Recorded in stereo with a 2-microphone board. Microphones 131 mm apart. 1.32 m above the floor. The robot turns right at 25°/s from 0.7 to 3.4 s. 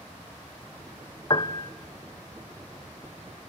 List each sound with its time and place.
1.3 s a piano: 35° left (ahead or behind), 0.7 m; by 1.7 s 25° left (ahead or behind), 0.7 m